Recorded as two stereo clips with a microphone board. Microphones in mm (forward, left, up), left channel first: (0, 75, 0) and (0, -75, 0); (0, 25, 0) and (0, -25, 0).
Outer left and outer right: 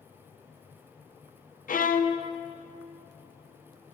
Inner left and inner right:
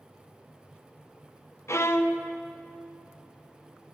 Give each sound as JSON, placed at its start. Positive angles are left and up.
{"t": 1.7, "sound": "a violin", "side_deg": 65, "distance_m": 0.5}